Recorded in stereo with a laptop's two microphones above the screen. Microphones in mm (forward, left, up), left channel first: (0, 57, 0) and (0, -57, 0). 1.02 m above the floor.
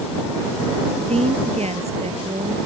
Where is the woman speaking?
70° right (ahead or behind).